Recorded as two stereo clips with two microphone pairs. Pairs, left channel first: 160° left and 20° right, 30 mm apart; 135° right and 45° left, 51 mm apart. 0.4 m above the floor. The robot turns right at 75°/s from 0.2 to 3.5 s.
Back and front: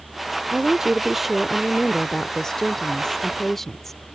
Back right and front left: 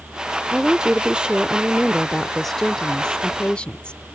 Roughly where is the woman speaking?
Ahead.